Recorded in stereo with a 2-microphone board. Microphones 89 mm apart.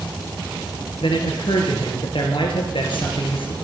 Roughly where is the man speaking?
Left.